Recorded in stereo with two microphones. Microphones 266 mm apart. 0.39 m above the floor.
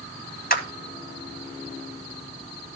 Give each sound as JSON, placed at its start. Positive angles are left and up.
{"t": 0.5, "sound": "a clap", "side_deg": 35, "distance_m": 1.7}